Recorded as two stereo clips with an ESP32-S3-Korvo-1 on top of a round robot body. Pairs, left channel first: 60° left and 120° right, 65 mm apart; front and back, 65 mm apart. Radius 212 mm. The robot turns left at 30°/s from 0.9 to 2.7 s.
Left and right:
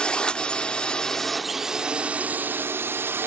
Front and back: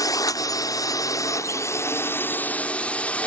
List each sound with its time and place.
0.0 s a drone: 15° right; by 3.3 s 70° right